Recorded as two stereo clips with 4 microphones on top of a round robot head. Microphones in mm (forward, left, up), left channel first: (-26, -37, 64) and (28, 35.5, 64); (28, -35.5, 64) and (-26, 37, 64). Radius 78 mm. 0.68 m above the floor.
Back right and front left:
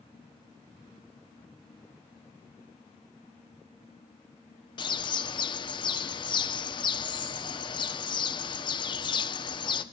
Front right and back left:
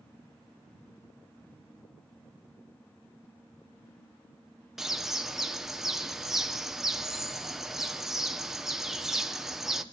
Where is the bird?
150° right, 1.0 m.